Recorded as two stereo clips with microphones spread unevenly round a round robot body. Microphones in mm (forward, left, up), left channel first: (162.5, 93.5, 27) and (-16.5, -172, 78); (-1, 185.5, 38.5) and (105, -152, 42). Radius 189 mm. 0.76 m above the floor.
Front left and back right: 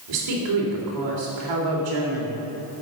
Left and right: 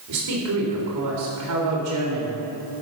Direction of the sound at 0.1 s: 115° right.